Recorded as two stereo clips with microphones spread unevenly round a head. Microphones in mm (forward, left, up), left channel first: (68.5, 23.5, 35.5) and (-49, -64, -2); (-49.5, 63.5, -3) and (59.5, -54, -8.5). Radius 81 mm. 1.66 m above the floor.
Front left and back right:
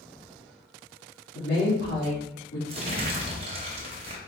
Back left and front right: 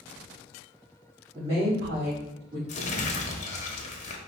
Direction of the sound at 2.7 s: 160° left.